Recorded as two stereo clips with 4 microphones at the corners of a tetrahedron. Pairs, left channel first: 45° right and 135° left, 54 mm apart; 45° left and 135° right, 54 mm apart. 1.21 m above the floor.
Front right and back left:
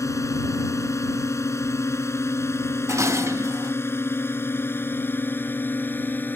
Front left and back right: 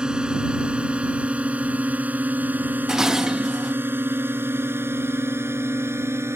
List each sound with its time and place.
0.0 s a drone: 60° right; by 6.4 s 95° right
2.9 s dishes clattering: 150° left